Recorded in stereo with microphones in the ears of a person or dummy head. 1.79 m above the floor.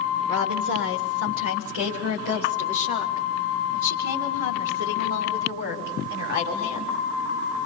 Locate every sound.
0.3 s a woman speaking: 80° right, 2.5 m; by 7.0 s 70° right (ahead or behind), 6 m